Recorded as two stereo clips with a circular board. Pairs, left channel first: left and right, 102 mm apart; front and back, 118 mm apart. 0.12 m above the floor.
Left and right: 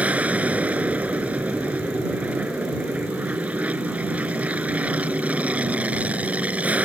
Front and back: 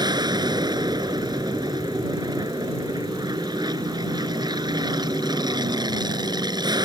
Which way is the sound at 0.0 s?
160° right.